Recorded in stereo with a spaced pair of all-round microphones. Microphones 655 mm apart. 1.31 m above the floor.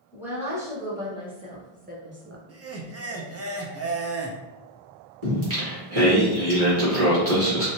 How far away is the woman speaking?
About 1.5 m.